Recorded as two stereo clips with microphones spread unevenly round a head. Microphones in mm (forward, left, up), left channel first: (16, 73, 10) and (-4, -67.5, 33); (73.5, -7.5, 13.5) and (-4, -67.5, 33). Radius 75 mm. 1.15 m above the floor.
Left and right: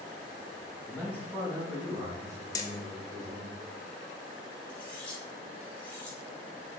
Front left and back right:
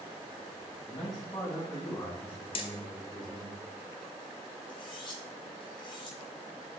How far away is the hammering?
About 0.9 m.